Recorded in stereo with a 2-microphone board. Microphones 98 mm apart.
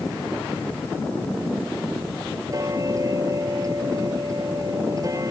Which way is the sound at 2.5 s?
35° right (ahead or behind).